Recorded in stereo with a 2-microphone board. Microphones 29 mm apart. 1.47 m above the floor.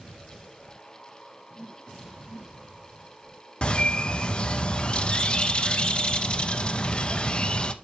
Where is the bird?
35° left (ahead or behind), 0.7 m.